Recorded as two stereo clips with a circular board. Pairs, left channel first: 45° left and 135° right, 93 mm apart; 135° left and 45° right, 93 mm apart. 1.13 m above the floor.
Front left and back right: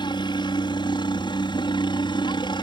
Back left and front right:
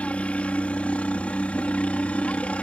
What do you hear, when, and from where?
0.0 s a helicopter: 60° left